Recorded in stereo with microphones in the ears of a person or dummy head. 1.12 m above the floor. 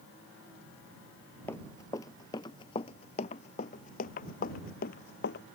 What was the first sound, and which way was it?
Running footsteps, 10° left (ahead or behind).